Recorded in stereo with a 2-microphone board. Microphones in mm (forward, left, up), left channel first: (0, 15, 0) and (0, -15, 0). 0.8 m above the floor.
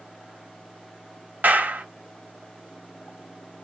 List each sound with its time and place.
1.4 s a clap: 60° right (ahead or behind), 1.0 m